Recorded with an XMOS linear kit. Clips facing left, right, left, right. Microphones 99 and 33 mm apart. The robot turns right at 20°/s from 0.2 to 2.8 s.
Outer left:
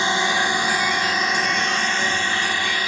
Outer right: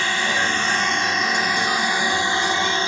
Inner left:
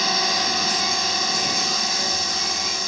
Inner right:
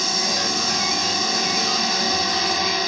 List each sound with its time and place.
0.0 s a drone: 160° left; by 2.9 s 150° right